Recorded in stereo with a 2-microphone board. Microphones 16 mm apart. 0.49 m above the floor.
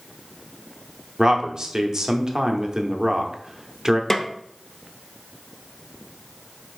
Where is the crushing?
I don't hear crushing.